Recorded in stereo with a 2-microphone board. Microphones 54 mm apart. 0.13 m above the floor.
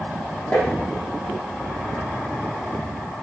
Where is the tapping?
30° left (ahead or behind), 6.5 m.